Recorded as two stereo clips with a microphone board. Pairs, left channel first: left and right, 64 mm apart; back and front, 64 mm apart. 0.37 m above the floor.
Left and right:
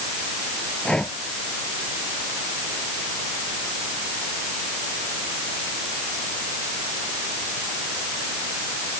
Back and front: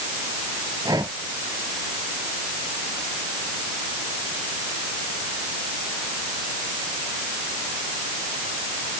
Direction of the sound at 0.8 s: 15° left.